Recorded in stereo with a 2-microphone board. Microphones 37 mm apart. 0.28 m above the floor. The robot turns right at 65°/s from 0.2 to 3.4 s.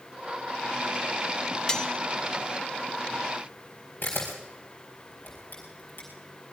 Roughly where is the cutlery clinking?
Left.